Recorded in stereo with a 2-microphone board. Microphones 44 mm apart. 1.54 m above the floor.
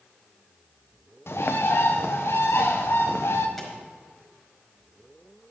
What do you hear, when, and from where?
1.3 s a bird: 65° left (ahead or behind), 1.2 m
3.6 s a pop: 5° left (ahead or behind), 5 m